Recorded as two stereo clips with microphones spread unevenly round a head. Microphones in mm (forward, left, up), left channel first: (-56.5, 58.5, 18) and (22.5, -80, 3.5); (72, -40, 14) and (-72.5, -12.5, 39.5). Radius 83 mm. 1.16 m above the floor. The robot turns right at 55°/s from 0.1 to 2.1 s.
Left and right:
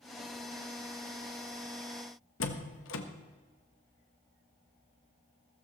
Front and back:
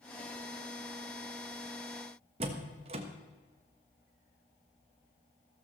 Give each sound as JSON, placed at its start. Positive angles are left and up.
{"t": 2.4, "sound": "a door slam", "azimuth_deg": 115, "distance_m": 1.2}